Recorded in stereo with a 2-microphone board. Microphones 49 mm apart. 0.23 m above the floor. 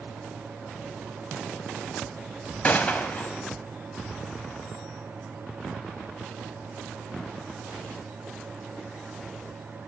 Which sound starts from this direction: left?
A gunshot, at 2.6 s.